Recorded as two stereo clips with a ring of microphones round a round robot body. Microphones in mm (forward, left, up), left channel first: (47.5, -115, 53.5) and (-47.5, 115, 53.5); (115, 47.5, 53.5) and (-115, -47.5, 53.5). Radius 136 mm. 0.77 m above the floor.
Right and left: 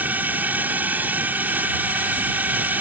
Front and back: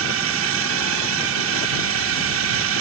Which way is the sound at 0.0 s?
165° right.